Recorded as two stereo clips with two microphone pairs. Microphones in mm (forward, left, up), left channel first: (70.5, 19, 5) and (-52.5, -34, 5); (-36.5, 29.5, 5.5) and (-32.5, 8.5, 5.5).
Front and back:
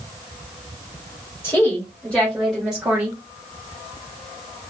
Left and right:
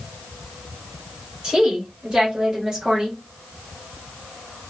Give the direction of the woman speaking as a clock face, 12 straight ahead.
1 o'clock.